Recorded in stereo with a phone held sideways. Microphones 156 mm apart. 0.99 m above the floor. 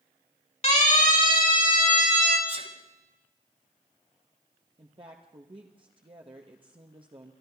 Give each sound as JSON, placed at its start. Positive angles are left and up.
{"t": 0.6, "sound": "a siren", "side_deg": 45, "distance_m": 2.5}
{"t": 2.5, "sound": "a sneeze", "side_deg": -40, "distance_m": 2.5}
{"t": 4.8, "sound": "a woman speaking", "side_deg": -35, "distance_m": 1.0}